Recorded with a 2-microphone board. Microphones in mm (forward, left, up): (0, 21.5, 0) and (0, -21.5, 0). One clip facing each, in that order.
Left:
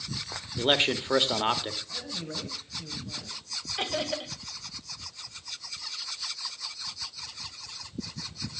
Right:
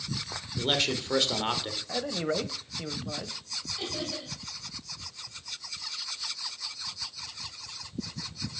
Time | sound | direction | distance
0.6 | a man speaking | 30° left (ahead or behind) | 1.5 m
1.9 | a man speaking | 55° right (ahead or behind) | 1.8 m
3.8 | laughter | 55° left (ahead or behind) | 2.5 m